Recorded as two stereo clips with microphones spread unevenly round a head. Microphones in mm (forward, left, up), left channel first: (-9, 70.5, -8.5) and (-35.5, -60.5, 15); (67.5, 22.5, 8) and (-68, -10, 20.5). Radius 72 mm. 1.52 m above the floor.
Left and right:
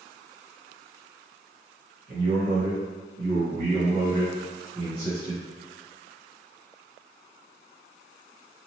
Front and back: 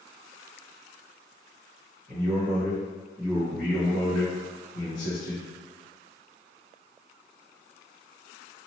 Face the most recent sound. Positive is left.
turn(degrees=0)